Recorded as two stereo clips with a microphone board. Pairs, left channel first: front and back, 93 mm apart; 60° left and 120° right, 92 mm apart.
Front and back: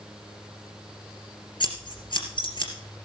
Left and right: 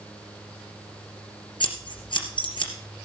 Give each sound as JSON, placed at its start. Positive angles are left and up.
{"t": 1.6, "sound": "scissors", "azimuth_deg": 30, "distance_m": 2.5}